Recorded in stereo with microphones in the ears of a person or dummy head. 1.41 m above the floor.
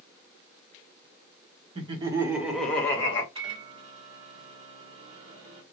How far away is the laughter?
About 1.0 m.